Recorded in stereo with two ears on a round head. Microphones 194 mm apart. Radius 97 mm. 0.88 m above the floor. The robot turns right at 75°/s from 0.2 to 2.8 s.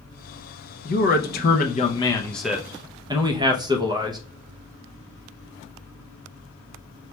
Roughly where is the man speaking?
Ahead left.